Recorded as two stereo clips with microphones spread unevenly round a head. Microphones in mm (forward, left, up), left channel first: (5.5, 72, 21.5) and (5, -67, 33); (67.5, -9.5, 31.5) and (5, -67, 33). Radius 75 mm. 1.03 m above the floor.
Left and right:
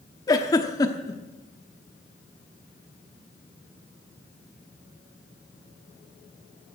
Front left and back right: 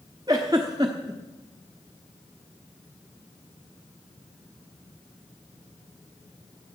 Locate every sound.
0.3 s a giggle: 155° left, 0.9 m